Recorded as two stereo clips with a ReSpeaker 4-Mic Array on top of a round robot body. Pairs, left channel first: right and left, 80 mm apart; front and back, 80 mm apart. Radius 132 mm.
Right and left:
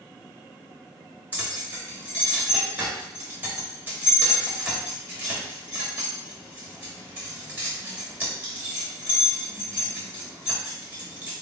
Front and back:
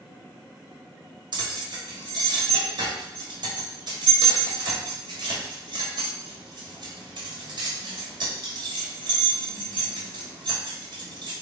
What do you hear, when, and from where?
1.3 s keys jangling: 160° left, 1.7 m